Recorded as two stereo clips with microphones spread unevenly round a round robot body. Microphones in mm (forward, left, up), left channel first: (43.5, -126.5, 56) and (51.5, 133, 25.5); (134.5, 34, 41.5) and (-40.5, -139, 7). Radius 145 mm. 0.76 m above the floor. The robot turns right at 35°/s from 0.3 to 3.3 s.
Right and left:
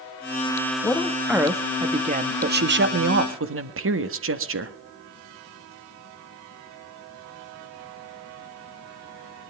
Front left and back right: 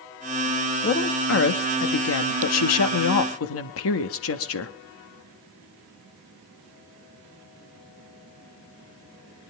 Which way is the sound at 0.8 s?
10° right.